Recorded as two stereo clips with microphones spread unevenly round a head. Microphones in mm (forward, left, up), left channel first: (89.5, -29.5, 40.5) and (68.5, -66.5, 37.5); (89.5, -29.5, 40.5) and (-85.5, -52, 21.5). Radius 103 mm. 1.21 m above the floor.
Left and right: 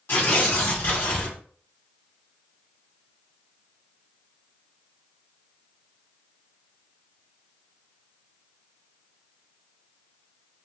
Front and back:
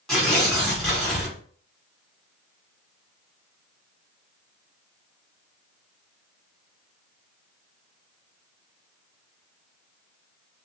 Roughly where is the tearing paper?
Left.